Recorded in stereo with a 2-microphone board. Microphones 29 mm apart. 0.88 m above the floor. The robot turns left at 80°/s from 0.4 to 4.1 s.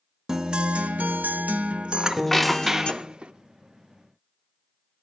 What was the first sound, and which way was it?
A guitar, 20° right.